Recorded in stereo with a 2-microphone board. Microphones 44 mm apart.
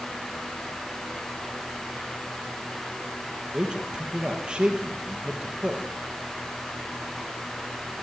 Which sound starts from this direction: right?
A man speaking, at 3.5 s.